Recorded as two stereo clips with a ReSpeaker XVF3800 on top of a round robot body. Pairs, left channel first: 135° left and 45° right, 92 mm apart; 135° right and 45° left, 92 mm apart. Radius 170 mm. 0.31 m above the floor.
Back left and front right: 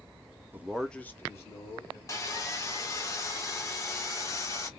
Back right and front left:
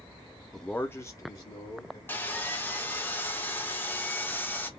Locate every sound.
0.5 s a man speaking: 45° right, 0.9 m; by 2.0 s straight behind, 1.9 m
2.1 s sawing: 170° left, 1.3 m